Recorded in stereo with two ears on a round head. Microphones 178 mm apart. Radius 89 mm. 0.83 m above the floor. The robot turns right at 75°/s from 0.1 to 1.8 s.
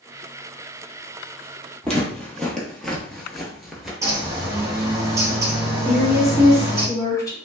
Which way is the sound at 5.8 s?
15° left (ahead or behind).